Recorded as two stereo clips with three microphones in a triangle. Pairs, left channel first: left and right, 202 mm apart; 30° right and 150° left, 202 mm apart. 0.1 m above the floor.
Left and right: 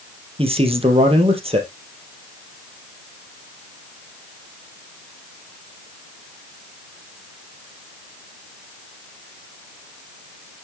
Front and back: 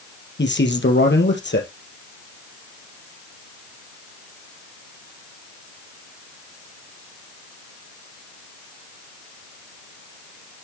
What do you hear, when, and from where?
0.4 s a man speaking: 30° right, 2.5 m